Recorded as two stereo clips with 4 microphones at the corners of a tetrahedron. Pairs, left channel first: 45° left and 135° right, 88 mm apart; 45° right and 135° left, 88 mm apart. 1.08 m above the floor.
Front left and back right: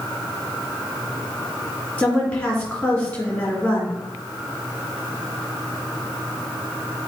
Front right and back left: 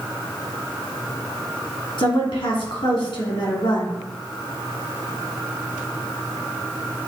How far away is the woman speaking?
About 3 m.